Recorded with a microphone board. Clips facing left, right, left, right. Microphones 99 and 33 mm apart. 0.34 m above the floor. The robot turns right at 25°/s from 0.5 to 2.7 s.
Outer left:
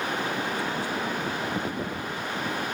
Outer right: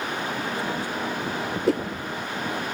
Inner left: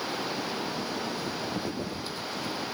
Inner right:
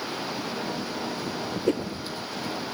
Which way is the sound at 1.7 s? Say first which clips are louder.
Outer right 9 dB, inner right 9 dB; 80° right.